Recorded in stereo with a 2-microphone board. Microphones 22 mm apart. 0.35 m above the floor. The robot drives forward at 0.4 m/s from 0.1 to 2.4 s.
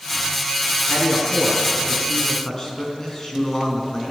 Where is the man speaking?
15° left (ahead or behind), 4 m; by 4.1 s 20° left (ahead or behind), 3.5 m.